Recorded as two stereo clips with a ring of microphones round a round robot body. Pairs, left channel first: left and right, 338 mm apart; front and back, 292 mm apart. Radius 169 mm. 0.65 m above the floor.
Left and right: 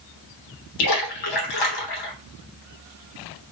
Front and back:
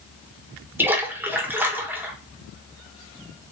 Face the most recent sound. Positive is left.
turn(degrees=95)